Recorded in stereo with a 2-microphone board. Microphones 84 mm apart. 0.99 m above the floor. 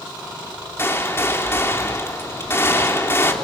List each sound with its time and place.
0.8 s a gunshot: 30° left (ahead or behind), 3 m